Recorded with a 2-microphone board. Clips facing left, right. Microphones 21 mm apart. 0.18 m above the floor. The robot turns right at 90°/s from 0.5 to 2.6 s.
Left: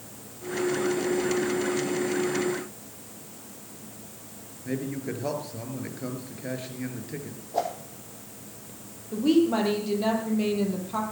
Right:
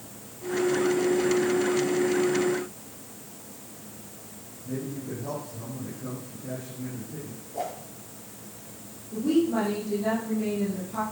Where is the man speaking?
70° left (ahead or behind), 4 m.